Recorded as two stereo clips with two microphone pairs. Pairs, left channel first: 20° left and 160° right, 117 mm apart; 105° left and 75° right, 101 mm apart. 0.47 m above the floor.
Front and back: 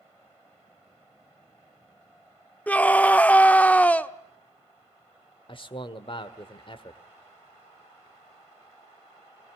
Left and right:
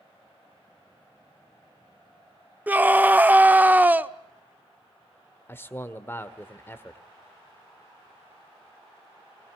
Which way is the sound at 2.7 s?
40° right.